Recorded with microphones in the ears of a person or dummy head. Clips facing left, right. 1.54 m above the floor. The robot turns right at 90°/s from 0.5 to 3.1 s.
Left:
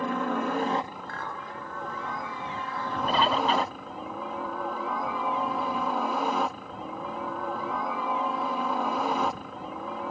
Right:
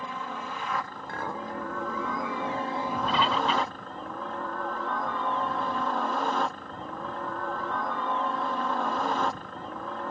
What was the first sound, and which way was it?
A helicopter, 130° left.